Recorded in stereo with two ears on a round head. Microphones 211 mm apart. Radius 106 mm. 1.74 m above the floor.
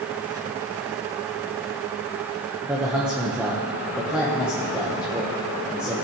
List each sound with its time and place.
2.6 s a man speaking: 5° right (ahead or behind), 1.2 m